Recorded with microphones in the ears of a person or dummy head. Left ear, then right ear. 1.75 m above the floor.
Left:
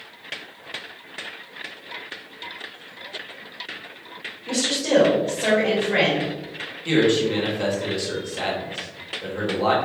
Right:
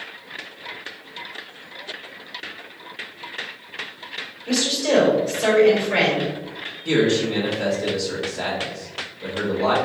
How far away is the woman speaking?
About 1.6 m.